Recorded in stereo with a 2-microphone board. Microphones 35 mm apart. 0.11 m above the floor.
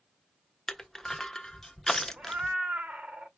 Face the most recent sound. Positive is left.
turn(degrees=-40)  # may be behind; listen again after turning